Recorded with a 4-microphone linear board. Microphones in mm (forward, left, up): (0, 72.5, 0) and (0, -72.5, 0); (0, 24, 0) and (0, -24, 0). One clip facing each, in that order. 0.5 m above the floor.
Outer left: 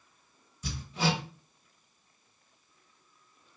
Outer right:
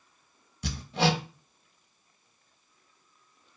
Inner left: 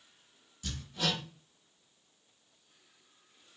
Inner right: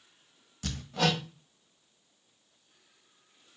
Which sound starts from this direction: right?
Hammering, at 0.6 s.